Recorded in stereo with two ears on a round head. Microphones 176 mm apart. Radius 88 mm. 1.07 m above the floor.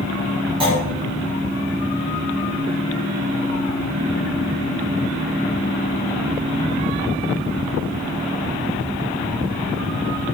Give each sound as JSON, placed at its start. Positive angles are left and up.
{"t": 0.6, "sound": "a clunk", "side_deg": -30, "distance_m": 3.5}